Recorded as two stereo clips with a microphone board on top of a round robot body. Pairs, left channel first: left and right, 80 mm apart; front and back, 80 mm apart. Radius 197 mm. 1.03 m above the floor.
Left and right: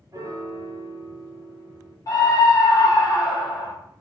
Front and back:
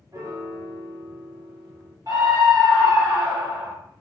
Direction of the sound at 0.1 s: 135° right.